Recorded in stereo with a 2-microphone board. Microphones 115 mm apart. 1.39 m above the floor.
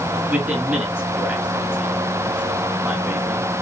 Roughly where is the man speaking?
Centre.